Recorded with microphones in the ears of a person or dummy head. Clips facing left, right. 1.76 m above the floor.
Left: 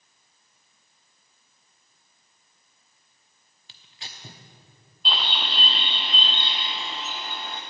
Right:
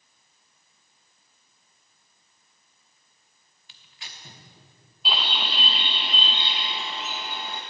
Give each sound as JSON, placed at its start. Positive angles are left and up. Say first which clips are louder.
{"t": 3.7, "sound": "tearing paper", "louder": "left 2 dB", "side_deg": 30, "distance_m": 0.9}
{"t": 5.0, "sound": "a bird", "louder": "even", "side_deg": 0, "distance_m": 0.5}